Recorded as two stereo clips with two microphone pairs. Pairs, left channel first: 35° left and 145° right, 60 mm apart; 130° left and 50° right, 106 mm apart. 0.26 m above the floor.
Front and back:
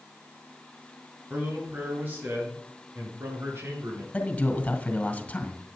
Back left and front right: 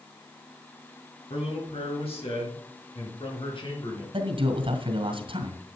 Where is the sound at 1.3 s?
150° left, 4.5 m; by 4.0 s 170° left, 5 m.